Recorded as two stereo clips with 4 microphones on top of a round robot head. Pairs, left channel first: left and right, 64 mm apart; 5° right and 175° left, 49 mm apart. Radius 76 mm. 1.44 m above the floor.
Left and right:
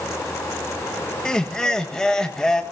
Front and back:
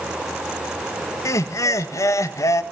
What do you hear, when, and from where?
1.2 s laughter: 10° left, 1.6 m